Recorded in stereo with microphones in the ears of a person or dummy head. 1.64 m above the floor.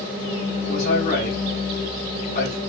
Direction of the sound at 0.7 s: 55° left (ahead or behind).